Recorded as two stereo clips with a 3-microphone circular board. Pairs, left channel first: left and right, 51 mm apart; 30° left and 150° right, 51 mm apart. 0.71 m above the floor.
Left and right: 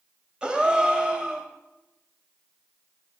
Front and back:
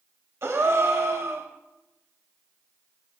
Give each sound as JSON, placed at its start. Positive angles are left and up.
{"t": 0.4, "sound": "a gasp", "azimuth_deg": -160, "distance_m": 0.8}